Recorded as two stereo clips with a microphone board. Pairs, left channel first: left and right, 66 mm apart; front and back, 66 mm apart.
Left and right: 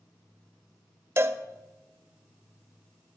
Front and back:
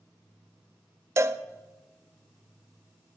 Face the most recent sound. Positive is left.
turn(degrees=-135)